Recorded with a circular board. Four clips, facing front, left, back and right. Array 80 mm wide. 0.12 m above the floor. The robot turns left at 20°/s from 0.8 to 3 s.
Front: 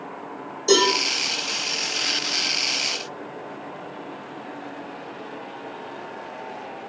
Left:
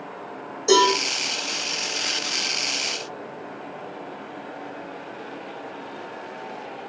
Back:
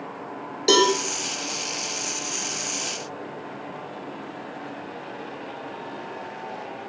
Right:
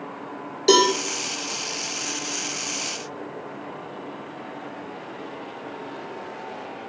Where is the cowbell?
135° right, 1.1 m.